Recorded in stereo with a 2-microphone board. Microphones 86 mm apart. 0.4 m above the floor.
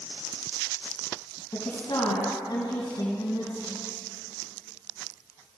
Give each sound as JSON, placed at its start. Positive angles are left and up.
{"t": 1.5, "sound": "a woman speaking", "side_deg": 45, "distance_m": 3.0}